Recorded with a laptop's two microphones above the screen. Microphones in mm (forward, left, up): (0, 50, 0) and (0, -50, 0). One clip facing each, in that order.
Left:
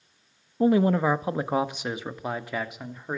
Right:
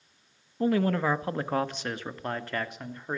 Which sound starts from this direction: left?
A man speaking, at 0.6 s.